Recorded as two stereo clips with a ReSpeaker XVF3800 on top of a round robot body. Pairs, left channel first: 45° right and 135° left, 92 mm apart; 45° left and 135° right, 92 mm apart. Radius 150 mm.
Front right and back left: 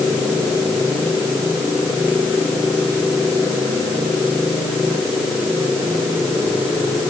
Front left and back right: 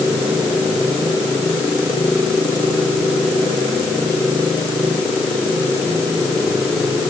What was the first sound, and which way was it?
Only background noise.